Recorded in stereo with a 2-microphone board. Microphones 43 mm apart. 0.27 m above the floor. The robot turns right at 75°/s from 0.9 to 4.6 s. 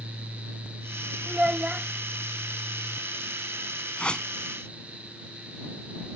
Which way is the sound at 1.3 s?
20° right (ahead or behind).